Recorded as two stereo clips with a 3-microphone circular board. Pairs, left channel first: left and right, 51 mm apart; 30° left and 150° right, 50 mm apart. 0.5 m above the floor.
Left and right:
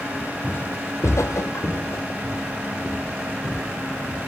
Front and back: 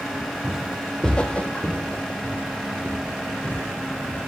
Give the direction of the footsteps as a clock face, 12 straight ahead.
7 o'clock.